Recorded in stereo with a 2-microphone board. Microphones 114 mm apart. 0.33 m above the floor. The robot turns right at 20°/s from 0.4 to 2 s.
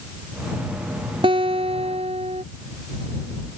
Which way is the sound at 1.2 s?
50° right (ahead or behind).